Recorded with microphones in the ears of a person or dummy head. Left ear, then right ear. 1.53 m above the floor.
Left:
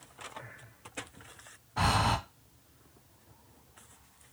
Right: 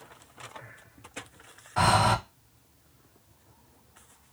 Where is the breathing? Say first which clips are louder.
Right 6 dB; 50° right (ahead or behind), 1.1 m.